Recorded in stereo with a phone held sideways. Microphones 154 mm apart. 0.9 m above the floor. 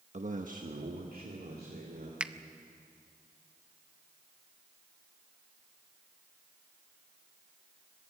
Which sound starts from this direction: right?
A man speaking, at 0.1 s.